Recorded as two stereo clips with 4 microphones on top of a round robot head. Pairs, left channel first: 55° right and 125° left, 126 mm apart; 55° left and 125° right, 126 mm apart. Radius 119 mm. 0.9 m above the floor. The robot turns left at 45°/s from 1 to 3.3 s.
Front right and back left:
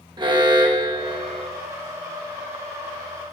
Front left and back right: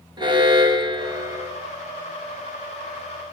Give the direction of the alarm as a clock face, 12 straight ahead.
6 o'clock.